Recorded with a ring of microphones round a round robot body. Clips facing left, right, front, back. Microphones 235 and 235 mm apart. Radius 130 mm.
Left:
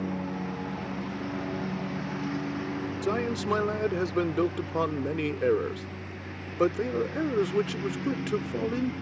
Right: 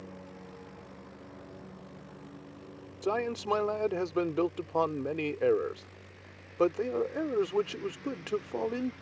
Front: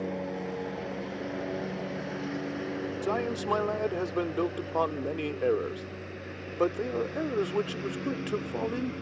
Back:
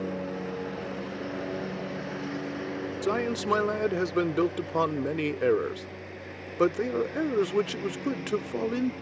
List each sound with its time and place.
0.0 s a lawn mower: 95° left; by 9.0 s 75° left
3.0 s a man speaking: 140° left